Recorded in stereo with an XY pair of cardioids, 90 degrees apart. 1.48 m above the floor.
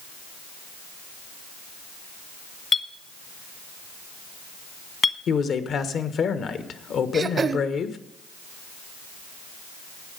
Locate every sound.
2.7 s a clink: 45° left, 1.3 m
5.3 s a man speaking: 65° left, 1.3 m
7.1 s throat clearing: 45° right, 0.8 m